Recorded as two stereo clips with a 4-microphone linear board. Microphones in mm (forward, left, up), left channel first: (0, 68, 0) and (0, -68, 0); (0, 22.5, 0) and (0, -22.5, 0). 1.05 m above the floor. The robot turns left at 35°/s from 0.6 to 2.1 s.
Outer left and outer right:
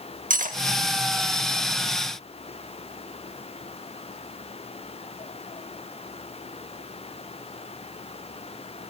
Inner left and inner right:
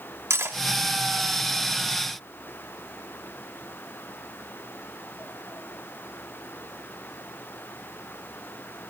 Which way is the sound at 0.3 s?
75° right (ahead or behind).